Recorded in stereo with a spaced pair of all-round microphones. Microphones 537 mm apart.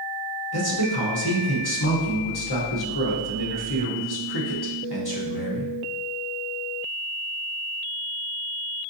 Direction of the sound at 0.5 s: 45° left (ahead or behind).